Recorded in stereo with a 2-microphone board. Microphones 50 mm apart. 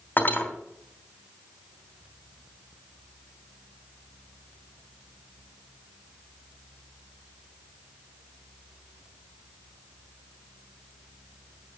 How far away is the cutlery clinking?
About 2.5 m.